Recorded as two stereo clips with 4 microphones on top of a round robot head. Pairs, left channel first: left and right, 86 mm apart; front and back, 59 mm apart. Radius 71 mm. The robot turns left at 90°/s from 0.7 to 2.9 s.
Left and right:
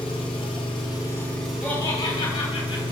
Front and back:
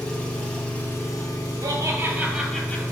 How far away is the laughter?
About 3 m.